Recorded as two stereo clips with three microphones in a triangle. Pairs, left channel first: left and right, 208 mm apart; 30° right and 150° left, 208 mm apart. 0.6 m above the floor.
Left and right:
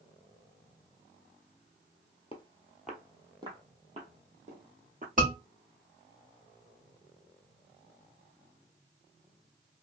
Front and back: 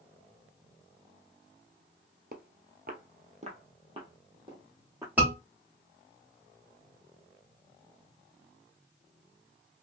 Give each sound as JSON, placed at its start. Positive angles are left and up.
{"t": 2.3, "sound": "footsteps", "azimuth_deg": 140, "distance_m": 0.8}
{"t": 5.2, "sound": "a scream", "azimuth_deg": -130, "distance_m": 1.9}